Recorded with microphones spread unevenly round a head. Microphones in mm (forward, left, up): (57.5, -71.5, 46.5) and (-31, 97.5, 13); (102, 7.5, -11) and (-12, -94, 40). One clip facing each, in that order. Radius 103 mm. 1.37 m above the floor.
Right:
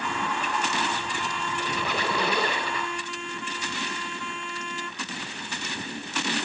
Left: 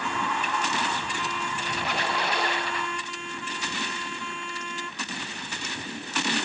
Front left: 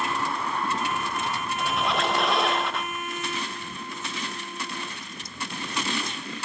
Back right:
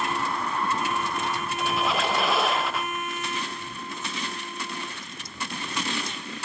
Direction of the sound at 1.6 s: 55° right.